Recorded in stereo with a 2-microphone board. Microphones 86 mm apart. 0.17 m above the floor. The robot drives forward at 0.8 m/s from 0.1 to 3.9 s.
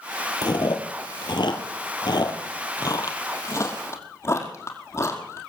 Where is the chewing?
60° left (ahead or behind), 1.7 m; by 5.5 s 35° left (ahead or behind), 2.5 m.